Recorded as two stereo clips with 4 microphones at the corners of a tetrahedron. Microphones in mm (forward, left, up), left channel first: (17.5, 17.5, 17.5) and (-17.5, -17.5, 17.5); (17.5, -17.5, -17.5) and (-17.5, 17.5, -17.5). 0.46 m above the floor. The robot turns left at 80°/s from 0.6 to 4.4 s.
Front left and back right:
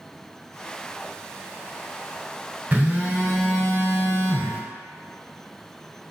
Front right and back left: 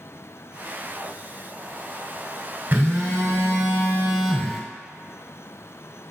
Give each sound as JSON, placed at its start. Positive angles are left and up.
{"t": 2.7, "sound": "a phone buzzing", "azimuth_deg": 180, "distance_m": 1.2}